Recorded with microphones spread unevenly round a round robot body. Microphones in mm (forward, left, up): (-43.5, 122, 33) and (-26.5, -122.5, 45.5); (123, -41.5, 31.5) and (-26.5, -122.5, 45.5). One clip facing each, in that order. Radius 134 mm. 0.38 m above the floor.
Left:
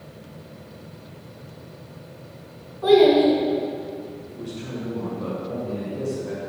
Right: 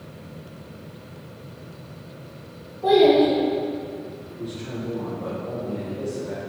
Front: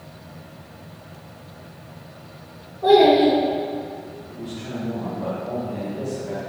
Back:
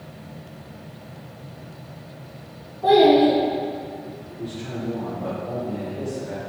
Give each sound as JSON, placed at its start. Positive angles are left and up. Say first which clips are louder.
{"t": 2.8, "sound": "a child speaking", "louder": "left 1 dB, front 1 dB", "azimuth_deg": 85, "distance_m": 2.5}
{"t": 4.3, "sound": "a man speaking", "louder": "right 1 dB, even", "azimuth_deg": 85, "distance_m": 2.0}